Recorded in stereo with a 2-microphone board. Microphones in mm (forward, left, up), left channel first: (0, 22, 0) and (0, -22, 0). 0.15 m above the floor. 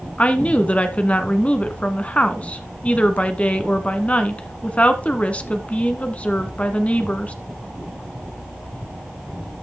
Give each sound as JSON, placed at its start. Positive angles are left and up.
{"t": 0.2, "sound": "a woman speaking", "side_deg": 30, "distance_m": 1.3}